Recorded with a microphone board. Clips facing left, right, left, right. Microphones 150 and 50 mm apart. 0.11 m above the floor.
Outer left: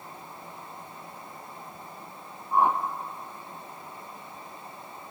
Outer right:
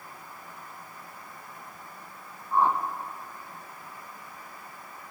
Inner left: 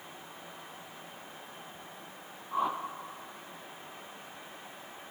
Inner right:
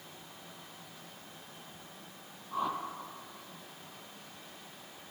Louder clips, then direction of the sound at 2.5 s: Outer left 1 dB, inner left 3 dB; 15° left (ahead or behind).